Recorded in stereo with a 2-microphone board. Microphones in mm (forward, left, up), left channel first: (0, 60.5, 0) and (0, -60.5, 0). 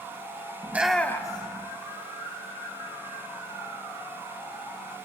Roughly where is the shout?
Right.